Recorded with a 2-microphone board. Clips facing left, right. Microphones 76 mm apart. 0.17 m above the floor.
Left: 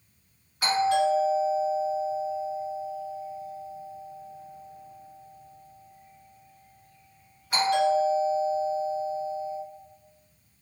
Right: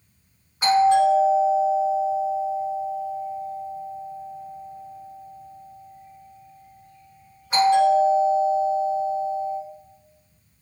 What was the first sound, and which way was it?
A doorbell, 25° right (ahead or behind).